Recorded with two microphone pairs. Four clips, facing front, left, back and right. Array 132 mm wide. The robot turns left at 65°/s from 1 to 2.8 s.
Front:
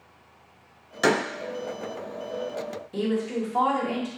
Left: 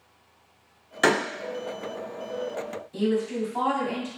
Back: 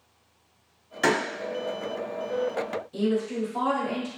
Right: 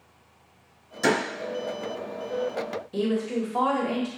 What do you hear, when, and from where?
1.0 s a door slam: 70° left, 0.9 m; by 1.2 s 55° left, 0.9 m
2.9 s a woman speaking: 60° right, 1.1 m